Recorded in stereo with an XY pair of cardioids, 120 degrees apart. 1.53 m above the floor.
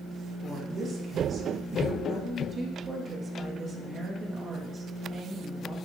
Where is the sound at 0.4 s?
35° right, 5 m.